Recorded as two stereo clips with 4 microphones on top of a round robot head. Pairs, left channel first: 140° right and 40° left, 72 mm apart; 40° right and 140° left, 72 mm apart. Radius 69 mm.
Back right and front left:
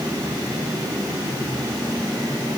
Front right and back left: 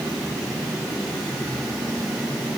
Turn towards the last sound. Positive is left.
No sound to turn to.